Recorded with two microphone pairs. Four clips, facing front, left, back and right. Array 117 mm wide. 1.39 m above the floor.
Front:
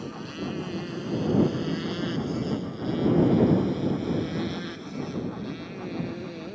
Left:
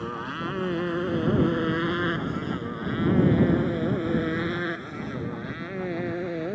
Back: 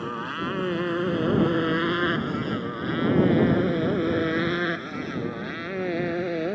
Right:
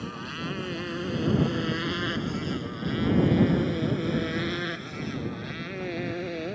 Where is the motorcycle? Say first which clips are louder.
Left 4 dB, back 4 dB; 160° left; by 6.5 s 175° left.